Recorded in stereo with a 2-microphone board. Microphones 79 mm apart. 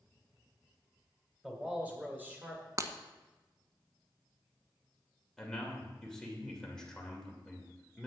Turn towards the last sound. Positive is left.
turn(degrees=10)  # may be behind; listen again after turning